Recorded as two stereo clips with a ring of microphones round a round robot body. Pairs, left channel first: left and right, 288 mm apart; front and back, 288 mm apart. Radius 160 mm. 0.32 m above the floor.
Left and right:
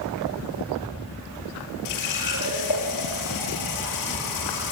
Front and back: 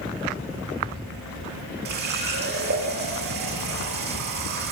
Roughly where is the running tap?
Behind left.